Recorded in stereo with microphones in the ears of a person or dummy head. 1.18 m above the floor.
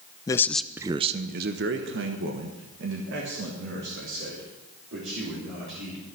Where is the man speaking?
20° left (ahead or behind), 0.6 m; by 6.1 s 65° right (ahead or behind), 3.5 m.